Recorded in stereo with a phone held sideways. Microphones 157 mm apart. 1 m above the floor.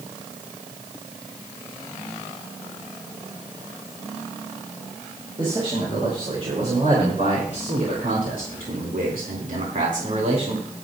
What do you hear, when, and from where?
5.4 s a man speaking: 35° right (ahead or behind), 5 m; by 10.6 s 45° right (ahead or behind), 3 m